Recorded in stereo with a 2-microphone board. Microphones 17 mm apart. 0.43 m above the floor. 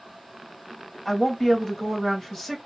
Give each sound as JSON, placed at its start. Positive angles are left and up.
{"t": 1.1, "sound": "a woman speaking", "side_deg": 15, "distance_m": 2.5}